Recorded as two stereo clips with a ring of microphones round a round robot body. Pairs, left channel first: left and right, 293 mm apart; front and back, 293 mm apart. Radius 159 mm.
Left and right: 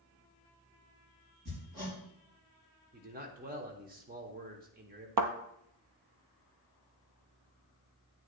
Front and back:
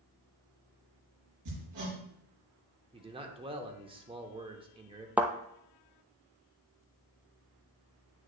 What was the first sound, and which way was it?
Hammering, 150° right.